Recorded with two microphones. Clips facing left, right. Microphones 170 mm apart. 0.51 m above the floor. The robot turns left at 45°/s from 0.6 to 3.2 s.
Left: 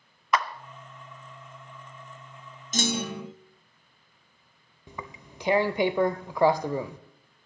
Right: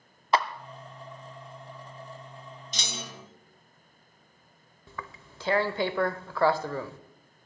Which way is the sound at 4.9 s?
15° left (ahead or behind).